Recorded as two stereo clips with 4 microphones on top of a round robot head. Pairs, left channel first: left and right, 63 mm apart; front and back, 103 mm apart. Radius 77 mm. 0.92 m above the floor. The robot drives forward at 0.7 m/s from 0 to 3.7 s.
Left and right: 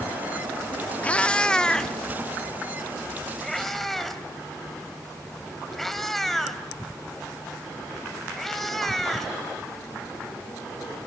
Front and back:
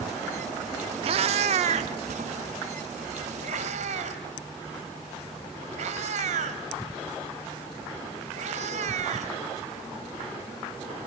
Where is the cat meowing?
155° left, 0.6 m; by 9.3 s 175° left, 2.5 m.